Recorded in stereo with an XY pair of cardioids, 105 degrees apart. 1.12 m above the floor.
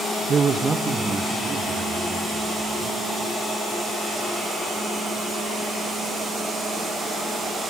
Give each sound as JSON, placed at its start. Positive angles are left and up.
{"t": 0.3, "sound": "a man speaking", "azimuth_deg": -45, "distance_m": 0.6}